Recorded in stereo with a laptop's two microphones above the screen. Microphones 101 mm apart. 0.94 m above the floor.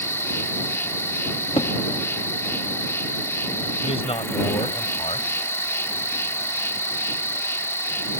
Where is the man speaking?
80° left.